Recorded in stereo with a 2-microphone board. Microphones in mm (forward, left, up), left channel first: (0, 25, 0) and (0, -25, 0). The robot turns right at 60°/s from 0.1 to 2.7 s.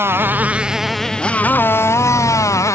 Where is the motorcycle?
50° right; by 2.8 s 105° left.